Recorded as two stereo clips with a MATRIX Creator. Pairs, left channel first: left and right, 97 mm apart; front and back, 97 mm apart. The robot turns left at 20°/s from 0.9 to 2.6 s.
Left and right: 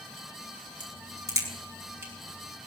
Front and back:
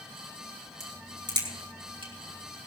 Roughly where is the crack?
Behind right.